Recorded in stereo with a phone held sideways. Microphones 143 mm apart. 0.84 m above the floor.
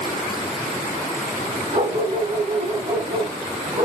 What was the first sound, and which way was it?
A dog barking, 35° right (ahead or behind).